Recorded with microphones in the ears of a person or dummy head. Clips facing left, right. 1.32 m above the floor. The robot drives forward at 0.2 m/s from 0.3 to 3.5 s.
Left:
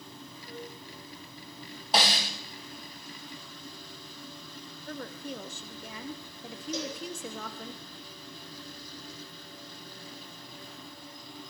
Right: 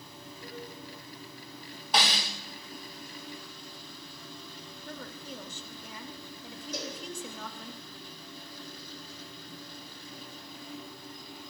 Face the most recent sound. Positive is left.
turn(degrees=65)  # may be behind; listen again after turning